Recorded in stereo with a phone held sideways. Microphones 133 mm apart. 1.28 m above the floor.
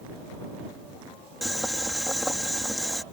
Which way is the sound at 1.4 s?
Centre (ahead or behind).